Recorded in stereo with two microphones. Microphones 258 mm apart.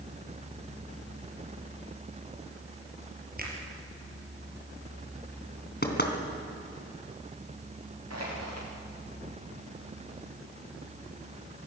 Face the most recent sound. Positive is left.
turn(degrees=-75)  # may be behind; listen again after turning